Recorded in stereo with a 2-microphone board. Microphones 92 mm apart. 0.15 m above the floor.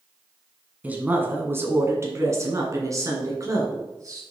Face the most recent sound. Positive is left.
turn(degrees=-35)  # may be behind; listen again after turning